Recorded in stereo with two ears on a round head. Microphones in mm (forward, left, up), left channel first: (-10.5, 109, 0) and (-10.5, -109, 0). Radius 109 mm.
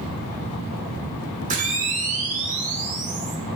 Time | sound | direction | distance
1.5 | a camera shutter | 30° right (ahead or behind) | 1.7 m